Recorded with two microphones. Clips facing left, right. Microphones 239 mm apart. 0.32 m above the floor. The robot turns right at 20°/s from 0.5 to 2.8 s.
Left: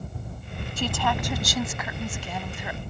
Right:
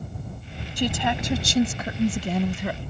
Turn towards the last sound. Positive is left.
turn(degrees=-125)